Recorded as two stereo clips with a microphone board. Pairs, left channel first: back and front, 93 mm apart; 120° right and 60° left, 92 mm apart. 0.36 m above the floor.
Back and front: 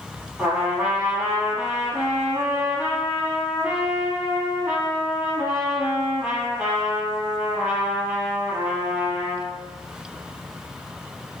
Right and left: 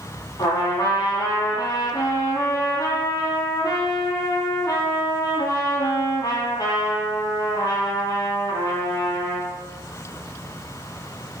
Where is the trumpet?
85° right, 4.5 m.